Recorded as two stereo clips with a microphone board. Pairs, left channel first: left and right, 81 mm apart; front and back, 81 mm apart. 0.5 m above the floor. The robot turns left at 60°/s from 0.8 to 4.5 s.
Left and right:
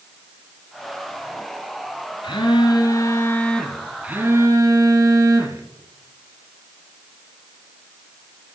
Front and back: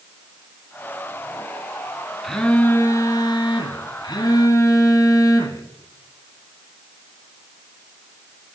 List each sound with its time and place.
2.2 s a phone buzzing: 90° left, 1.5 m; by 5.6 s 45° right, 1.5 m